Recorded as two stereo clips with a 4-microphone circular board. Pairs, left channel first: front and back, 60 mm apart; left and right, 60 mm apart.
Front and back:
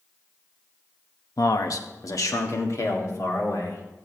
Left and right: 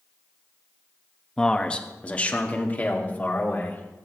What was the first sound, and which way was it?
A man speaking, 10° left.